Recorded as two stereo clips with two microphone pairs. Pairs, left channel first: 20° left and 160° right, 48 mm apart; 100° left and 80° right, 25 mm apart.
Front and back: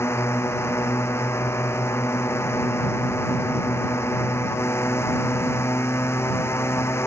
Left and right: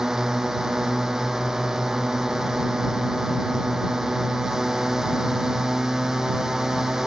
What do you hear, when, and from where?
0.0 s a drone: 10° right